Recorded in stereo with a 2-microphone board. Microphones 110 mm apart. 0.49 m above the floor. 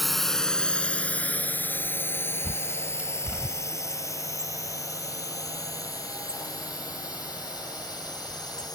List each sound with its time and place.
0.0 s a drone: centre (ahead or behind); by 8.8 s 35° left (ahead or behind)
2.4 s a bird: 15° right (ahead or behind)